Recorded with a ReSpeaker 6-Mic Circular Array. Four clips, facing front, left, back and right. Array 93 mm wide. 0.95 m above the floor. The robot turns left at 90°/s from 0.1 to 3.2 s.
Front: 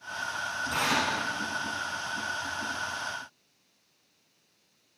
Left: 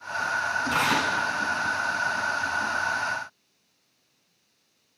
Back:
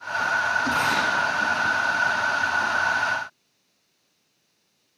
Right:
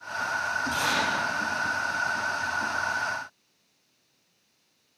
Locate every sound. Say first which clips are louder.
0.7 s tearing paper: left 3 dB, back 6 dB; 100° left, 10 m; by 1.1 s 65° left, 10 m